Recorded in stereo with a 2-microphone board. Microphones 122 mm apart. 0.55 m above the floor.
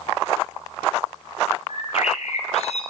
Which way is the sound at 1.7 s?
60° left (ahead or behind).